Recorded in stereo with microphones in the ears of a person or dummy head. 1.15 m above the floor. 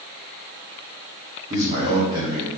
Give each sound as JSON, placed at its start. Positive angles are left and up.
{"t": 1.5, "sound": "a man speaking", "side_deg": -30, "distance_m": 2.5}